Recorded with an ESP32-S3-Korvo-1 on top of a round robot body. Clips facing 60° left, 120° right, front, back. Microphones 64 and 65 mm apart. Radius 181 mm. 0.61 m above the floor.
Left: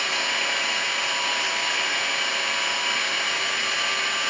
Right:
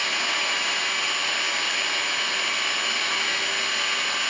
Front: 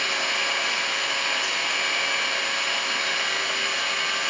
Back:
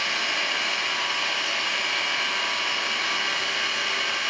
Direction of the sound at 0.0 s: 10° right.